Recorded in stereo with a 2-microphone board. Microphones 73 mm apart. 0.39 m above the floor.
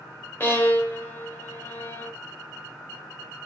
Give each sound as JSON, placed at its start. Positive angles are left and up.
{"t": 0.4, "sound": "a violin", "side_deg": 30, "distance_m": 0.8}